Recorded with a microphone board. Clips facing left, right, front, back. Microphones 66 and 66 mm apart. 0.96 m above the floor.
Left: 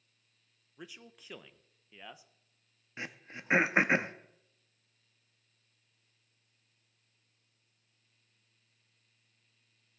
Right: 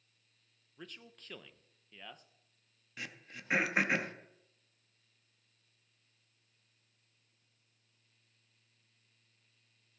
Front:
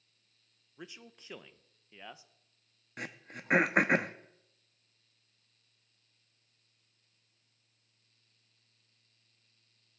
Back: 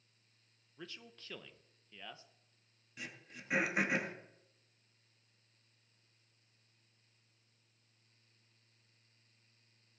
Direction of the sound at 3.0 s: 25° left.